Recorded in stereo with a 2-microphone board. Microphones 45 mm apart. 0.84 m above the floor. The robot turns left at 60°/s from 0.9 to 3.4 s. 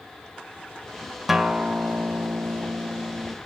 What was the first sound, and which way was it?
A guitar, 5° right.